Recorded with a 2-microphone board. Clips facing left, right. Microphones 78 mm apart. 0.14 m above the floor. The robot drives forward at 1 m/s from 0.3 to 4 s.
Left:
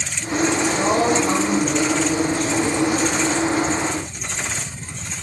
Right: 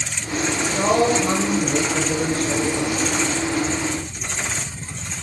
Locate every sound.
0.6 s a woman speaking: 40° right (ahead or behind), 2 m; by 3.1 s 45° right (ahead or behind), 2 m